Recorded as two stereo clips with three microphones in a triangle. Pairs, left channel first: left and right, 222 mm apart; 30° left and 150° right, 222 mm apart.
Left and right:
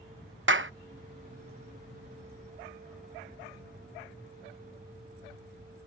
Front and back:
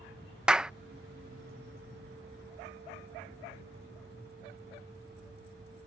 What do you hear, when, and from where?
0.5 s a clap: 65° right